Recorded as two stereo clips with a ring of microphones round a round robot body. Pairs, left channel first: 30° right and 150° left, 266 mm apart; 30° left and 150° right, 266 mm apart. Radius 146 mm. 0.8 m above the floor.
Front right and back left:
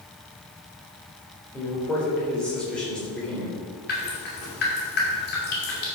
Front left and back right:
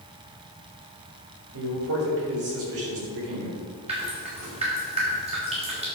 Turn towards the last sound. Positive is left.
turn(degrees=-80)